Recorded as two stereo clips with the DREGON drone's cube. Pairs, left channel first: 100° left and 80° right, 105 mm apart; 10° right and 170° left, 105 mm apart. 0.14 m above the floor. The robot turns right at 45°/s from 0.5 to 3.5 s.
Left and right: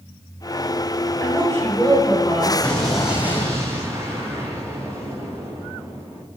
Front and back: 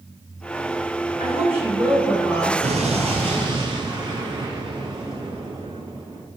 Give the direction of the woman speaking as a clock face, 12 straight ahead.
7 o'clock.